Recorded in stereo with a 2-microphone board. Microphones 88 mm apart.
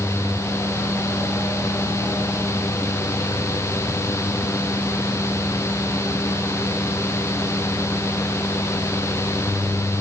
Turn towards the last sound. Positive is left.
No sound to turn to.